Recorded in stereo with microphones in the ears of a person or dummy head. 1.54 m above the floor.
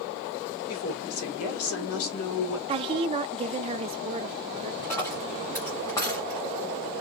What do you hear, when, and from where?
0.7 s a woman speaking: 80° left, 2.5 m
2.7 s a woman speaking: 25° right (ahead or behind), 0.6 m
4.8 s a dropped coin: 20° left (ahead or behind), 1.5 m